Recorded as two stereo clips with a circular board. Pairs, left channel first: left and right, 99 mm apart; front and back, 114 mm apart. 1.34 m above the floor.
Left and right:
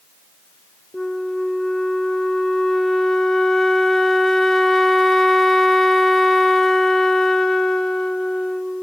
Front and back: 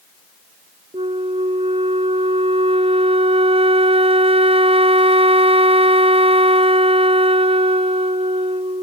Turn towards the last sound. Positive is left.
turn(degrees=175)